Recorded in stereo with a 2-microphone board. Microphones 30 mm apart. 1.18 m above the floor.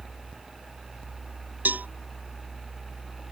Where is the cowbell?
85° right.